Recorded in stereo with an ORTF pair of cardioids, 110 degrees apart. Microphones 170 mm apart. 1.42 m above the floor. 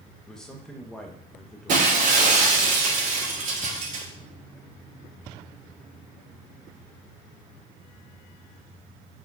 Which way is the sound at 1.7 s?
50° right.